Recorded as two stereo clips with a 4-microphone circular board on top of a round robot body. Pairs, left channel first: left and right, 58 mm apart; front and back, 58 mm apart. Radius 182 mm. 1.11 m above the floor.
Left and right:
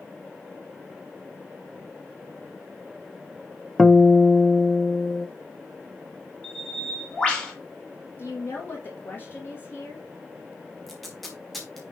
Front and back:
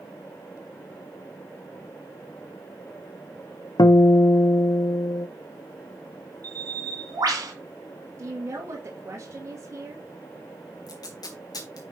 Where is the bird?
165° left, 2 m.